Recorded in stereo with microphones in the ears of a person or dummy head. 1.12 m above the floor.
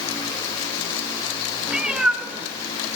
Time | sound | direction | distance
1.7 | a cat meowing | 5° right (ahead or behind) | 1.2 m